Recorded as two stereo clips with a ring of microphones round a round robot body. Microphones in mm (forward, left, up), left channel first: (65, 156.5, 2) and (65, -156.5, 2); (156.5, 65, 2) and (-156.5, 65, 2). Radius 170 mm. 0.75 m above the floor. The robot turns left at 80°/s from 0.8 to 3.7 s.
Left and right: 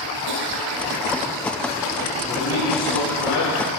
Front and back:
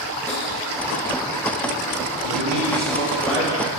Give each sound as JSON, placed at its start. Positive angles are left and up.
{"t": 0.3, "sound": "tapping", "azimuth_deg": -85, "distance_m": 7.5}
{"t": 2.3, "sound": "a man speaking", "azimuth_deg": 165, "distance_m": 5.5}